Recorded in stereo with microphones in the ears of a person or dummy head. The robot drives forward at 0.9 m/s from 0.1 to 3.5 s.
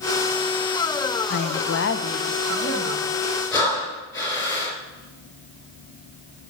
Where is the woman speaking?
55° left (ahead or behind), 0.5 m; by 3.1 s 15° left (ahead or behind), 1.5 m.